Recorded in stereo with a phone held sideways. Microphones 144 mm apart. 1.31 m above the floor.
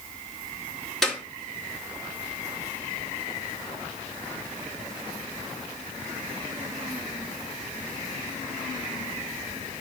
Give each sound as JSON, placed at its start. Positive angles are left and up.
{"t": 1.0, "sound": "a clap", "side_deg": 0, "distance_m": 2.5}